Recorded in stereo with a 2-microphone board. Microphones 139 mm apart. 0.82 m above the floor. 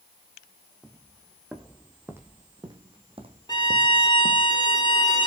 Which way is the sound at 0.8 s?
5° left (ahead or behind).